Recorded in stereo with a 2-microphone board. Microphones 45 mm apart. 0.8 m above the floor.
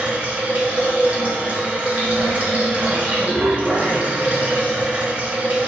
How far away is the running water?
About 2.5 m.